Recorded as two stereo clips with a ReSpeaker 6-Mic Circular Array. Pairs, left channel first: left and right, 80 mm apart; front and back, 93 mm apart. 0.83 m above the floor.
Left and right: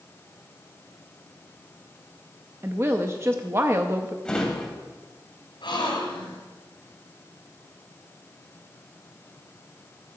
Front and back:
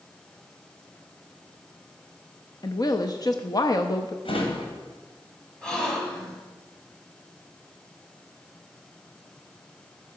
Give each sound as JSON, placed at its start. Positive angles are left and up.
{"t": 2.6, "sound": "a woman speaking", "azimuth_deg": -35, "distance_m": 0.6}
{"t": 4.2, "sound": "a drawer", "azimuth_deg": 10, "distance_m": 2.5}
{"t": 5.6, "sound": "a gasp", "azimuth_deg": 80, "distance_m": 3.0}